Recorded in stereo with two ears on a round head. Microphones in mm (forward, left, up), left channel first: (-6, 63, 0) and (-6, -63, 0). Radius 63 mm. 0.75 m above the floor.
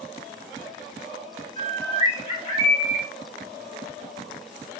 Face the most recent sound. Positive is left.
turn(degrees=30)  # may be behind; listen again after turning